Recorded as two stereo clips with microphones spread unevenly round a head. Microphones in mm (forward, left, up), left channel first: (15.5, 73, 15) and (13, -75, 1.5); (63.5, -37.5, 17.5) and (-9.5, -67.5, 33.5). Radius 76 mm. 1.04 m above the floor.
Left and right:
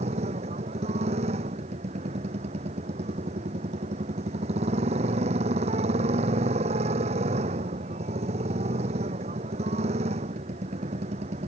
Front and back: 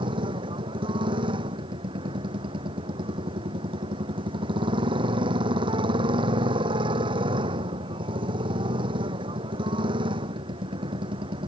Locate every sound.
0.0 s a motorcycle: 145° right